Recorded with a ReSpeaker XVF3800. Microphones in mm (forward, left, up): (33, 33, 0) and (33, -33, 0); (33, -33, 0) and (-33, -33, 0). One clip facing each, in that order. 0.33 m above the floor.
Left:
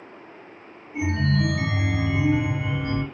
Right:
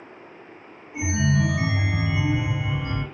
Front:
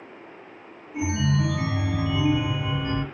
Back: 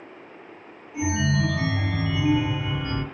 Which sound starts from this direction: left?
A chime, at 0.9 s.